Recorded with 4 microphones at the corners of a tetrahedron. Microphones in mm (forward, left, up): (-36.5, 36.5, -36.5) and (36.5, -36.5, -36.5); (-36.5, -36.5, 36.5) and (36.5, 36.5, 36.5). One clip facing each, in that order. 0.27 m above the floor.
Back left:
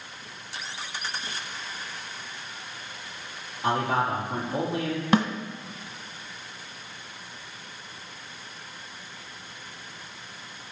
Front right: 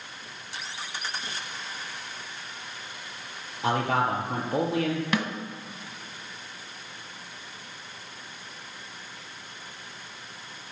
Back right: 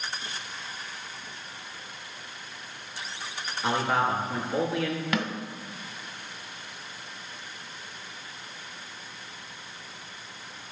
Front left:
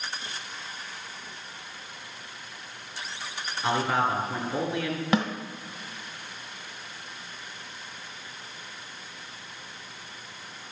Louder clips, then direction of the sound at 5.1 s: Back left 9 dB, front left 6 dB; 95° left.